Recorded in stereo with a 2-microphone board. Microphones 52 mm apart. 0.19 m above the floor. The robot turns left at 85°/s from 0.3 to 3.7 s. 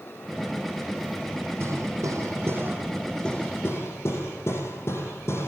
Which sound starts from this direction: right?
Hammering, at 1.6 s.